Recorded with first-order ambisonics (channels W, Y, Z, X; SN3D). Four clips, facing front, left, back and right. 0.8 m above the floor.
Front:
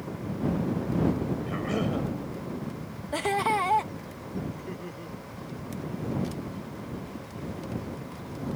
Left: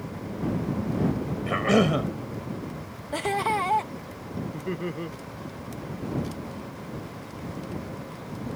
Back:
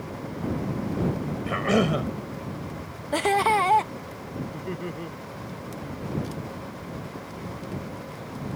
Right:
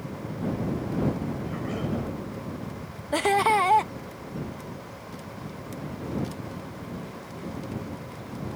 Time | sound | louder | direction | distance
1.5 | a cough | left 9 dB, back 11 dB | 125° left | ?
3.1 | laughter | right 4 dB, back 5 dB | 135° right | ?
4.5 | laughter | left 8 dB, back 5 dB | 115° left | ?